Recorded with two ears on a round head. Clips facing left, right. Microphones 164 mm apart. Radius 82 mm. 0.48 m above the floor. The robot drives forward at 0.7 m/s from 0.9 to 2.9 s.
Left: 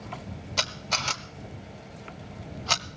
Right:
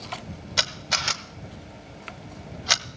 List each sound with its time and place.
0.6 s a camera shutter: 10° right (ahead or behind), 0.9 m